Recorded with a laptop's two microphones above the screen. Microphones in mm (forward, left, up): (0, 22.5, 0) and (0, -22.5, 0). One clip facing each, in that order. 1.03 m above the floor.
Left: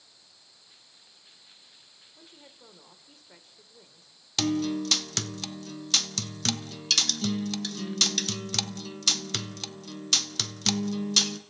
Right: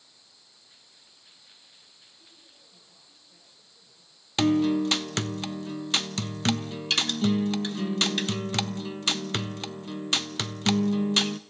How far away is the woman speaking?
About 3 m.